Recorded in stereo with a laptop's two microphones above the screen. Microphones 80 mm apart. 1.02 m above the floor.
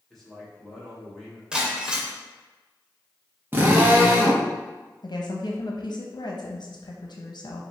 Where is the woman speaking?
60° left (ahead or behind), 0.8 m.